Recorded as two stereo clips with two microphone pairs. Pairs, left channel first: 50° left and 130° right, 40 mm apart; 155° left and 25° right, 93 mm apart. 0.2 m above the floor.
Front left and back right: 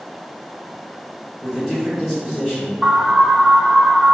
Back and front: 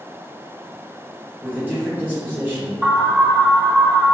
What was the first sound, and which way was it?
A man speaking, 55° right.